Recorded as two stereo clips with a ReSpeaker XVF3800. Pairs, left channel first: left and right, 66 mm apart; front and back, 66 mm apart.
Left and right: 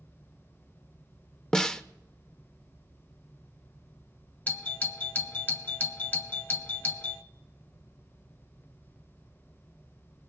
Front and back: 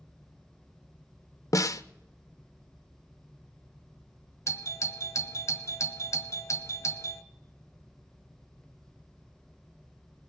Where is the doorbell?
30° left, 1.1 m.